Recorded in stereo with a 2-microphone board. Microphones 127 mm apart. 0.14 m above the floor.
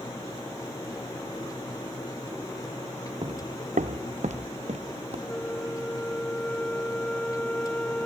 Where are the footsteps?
40° right (ahead or behind); by 5.2 s 55° right (ahead or behind).